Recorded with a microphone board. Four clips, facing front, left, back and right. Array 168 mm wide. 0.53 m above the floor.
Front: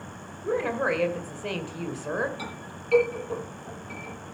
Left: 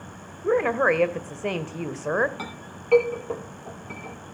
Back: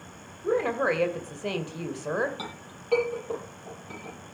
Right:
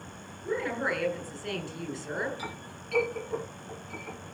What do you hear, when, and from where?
0.4 s a woman speaking: 100° left, 2 m
2.4 s a clink: 105° left, 9 m